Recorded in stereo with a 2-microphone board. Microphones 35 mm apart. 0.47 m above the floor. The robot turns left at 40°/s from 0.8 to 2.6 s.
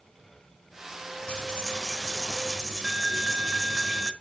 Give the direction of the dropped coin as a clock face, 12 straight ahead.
11 o'clock.